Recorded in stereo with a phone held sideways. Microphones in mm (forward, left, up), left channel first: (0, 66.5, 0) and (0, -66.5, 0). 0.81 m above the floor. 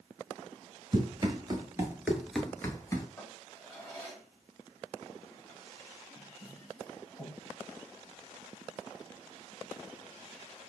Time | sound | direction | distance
0.9 | running footsteps | 45° right (ahead or behind) | 1.3 m
3.2 | a drawer | 20° left (ahead or behind) | 2.5 m